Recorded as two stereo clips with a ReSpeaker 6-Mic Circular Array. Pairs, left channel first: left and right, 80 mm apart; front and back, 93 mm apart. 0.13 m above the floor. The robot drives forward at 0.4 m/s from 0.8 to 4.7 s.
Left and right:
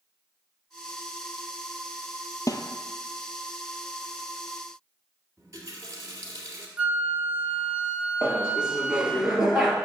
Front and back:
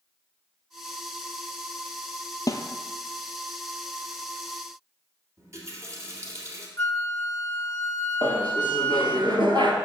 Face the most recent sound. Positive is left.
turn(degrees=-170)